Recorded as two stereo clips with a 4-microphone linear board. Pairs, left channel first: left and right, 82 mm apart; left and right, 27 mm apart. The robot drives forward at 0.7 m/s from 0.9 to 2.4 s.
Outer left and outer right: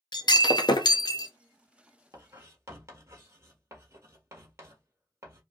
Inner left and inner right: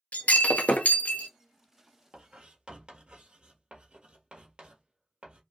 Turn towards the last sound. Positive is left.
turn(degrees=-35)  # may be behind; listen again after turning